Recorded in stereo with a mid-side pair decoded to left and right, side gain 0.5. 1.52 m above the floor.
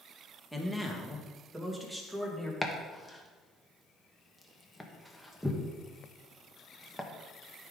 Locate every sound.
0.5 s a man speaking: 5° right, 1.5 m; by 2.5 s 15° right, 2.5 m
2.6 s chopping: 5° left, 1.2 m